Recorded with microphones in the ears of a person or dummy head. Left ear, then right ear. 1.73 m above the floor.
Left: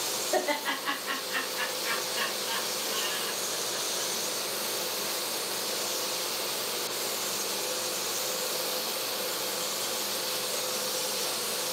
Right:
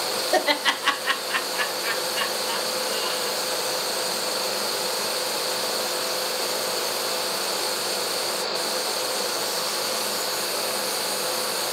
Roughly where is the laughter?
Right.